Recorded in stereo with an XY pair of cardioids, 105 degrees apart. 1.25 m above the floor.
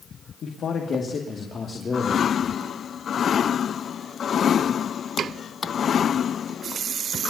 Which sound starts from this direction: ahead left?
A man speaking, at 0.4 s.